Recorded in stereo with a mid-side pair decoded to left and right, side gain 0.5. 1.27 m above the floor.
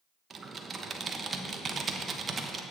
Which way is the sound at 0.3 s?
40° right.